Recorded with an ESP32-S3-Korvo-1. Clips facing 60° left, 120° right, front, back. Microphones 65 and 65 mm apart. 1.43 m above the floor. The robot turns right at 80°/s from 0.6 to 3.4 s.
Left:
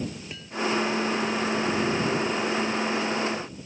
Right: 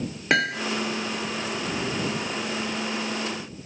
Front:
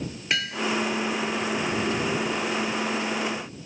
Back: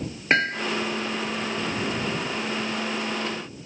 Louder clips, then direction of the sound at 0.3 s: Right 8 dB, back 5 dB; 130° right.